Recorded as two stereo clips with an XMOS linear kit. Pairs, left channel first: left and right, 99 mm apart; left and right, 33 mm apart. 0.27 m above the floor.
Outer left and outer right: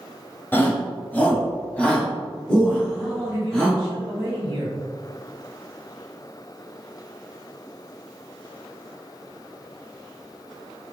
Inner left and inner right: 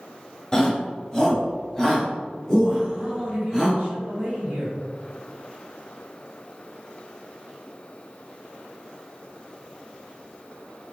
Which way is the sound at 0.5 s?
20° left (ahead or behind).